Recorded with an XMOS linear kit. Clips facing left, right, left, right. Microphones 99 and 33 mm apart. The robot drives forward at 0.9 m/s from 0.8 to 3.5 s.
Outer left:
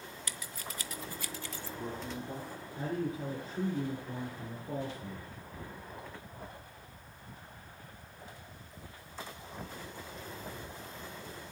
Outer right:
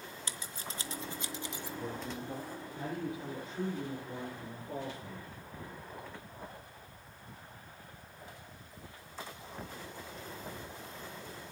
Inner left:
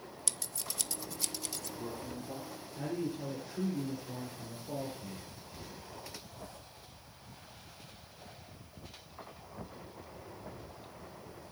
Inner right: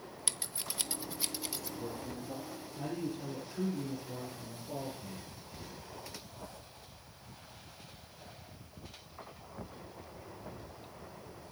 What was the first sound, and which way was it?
Scissors, 25° right (ahead or behind).